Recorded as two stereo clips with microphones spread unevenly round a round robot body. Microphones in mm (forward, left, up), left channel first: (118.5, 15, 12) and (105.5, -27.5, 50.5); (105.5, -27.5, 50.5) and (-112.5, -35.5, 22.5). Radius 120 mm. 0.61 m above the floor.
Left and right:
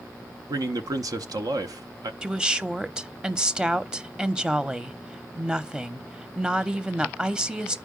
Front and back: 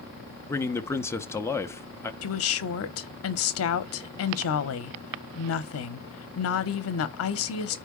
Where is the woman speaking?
10° right, 1.1 m.